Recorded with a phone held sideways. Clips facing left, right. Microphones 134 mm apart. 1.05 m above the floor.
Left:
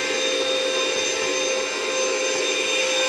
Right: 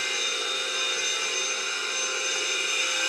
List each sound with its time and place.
0.0 s a machine running: 70° left (ahead or behind), 0.8 m